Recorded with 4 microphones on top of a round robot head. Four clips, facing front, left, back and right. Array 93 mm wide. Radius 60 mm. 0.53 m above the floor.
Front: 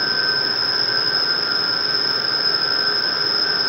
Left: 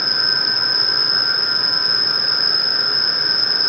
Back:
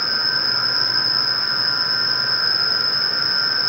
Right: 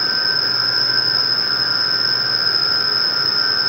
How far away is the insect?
About 0.8 m.